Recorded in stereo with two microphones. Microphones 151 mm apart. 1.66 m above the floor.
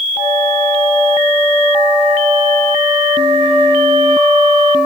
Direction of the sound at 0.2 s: 40° right (ahead or behind).